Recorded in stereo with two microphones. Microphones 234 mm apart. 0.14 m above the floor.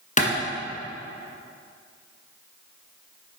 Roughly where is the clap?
Left.